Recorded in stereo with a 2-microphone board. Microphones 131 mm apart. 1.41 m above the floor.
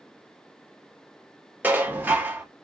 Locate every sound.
1.6 s dishes clattering: 15° right (ahead or behind), 0.9 m